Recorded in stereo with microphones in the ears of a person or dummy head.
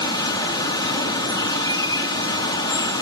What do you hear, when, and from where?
0.0 s running water: 20° left (ahead or behind), 2 m